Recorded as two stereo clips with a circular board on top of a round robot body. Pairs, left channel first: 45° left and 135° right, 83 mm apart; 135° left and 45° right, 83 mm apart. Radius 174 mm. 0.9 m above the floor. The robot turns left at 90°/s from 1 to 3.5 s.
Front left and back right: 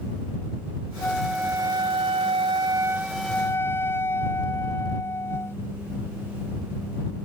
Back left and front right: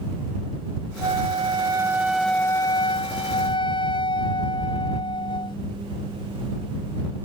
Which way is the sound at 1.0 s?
30° right.